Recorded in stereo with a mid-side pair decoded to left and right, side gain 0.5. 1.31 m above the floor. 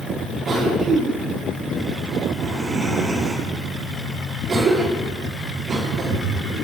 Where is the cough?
55° right, 3 m.